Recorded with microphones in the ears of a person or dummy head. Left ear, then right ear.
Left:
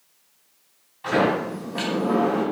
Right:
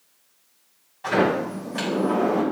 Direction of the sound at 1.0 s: 10° right (ahead or behind).